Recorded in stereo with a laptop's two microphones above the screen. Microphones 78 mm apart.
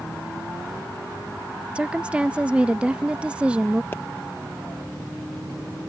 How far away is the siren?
No siren in this recording.